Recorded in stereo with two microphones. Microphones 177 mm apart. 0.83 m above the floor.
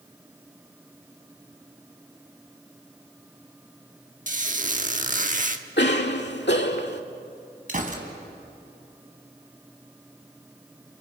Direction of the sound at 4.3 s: 45° right (ahead or behind).